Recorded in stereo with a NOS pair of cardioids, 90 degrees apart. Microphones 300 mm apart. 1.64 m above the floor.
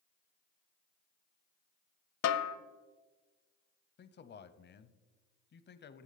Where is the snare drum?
60° left, 0.7 m.